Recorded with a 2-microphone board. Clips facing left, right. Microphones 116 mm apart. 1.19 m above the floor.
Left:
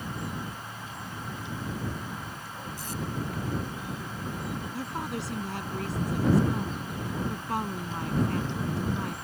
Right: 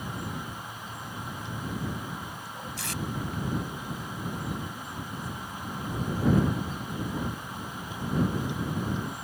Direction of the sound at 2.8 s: 80° right.